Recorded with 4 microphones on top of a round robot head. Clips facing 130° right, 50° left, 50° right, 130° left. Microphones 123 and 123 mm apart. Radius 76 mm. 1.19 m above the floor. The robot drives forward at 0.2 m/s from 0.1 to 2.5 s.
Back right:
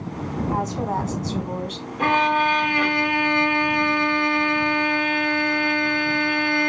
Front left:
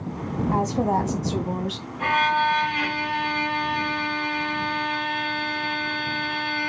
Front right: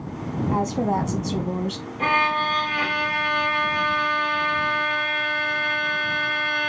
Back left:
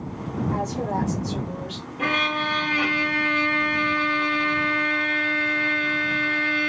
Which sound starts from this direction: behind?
A violin, at 2.0 s.